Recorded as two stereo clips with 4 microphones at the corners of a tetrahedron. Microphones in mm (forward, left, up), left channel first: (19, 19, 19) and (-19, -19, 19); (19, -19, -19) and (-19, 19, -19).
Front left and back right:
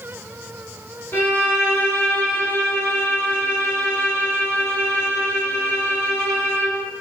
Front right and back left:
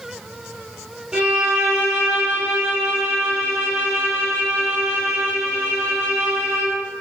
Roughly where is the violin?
Ahead left.